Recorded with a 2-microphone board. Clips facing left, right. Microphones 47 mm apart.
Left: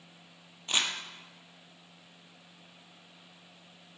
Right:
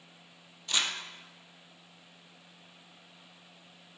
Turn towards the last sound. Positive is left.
turn(degrees=30)  # may be behind; listen again after turning